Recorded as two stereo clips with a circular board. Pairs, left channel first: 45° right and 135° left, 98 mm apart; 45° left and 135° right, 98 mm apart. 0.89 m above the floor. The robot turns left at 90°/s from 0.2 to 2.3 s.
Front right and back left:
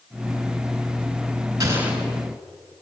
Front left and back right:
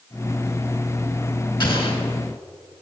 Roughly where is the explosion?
Left.